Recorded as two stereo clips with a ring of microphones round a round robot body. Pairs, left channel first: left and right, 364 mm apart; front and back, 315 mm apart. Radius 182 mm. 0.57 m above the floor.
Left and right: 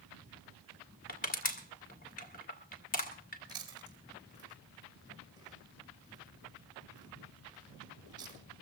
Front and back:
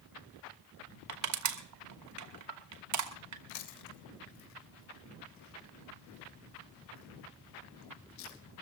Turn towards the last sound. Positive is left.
turn(degrees=-10)